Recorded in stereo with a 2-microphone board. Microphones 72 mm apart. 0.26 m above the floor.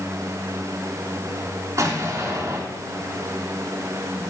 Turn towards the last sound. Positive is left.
turn(degrees=-45)  # may be behind; listen again after turning